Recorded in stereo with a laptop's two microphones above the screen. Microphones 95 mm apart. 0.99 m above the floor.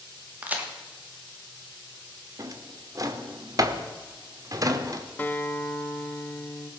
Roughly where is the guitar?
Left.